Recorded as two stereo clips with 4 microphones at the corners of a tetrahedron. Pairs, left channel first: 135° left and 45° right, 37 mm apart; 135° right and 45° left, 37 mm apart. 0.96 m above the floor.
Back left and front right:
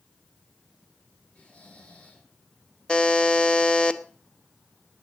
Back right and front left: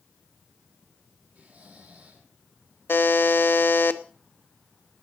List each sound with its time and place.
1.4 s snoring: 80° left, 5 m
2.9 s a buzzer: 160° right, 0.9 m